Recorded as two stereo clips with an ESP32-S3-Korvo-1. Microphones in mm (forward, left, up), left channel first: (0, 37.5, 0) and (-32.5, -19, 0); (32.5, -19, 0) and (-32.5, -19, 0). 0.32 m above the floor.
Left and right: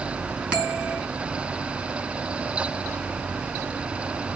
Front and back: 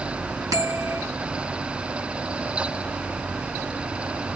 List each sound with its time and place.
0.5 s a bell: 170° left, 3 m